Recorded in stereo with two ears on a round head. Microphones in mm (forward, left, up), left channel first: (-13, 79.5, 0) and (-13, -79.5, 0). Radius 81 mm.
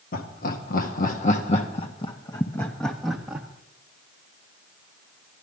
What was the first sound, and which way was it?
Laughter, 55° left (ahead or behind).